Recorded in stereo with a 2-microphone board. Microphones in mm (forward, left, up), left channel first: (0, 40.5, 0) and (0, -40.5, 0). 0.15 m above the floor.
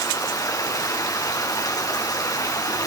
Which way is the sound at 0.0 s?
45° left (ahead or behind).